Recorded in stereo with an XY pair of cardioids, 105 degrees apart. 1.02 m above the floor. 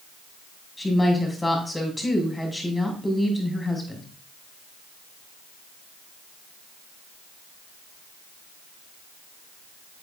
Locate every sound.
0.8 s a woman speaking: 10° left, 6.5 m